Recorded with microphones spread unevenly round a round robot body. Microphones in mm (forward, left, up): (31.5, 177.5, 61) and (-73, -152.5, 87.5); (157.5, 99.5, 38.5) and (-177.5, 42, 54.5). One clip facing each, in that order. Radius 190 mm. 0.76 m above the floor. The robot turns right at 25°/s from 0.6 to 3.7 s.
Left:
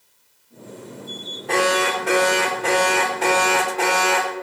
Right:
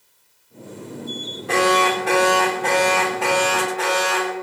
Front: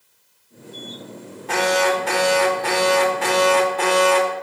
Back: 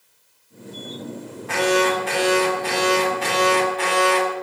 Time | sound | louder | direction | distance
1.5 | an alarm | right 2 dB, back 1 dB | 30° right | 2.5 m